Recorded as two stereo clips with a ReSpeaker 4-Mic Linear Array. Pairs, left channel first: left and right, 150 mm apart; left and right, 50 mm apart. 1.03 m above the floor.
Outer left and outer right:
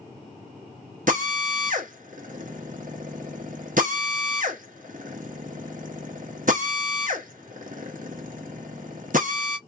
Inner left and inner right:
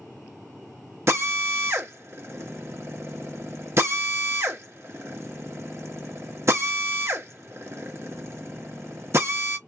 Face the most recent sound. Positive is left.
turn(degrees=-60)  # may be behind; listen again after turning